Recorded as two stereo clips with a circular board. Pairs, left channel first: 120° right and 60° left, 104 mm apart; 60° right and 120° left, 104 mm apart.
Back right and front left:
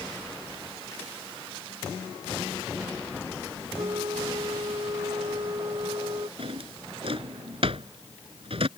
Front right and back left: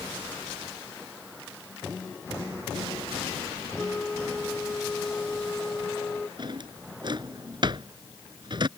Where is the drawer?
80° left.